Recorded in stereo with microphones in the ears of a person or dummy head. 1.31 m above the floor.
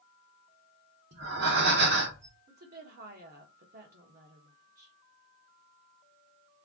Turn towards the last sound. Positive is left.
turn(degrees=-45)  # may be behind; listen again after turning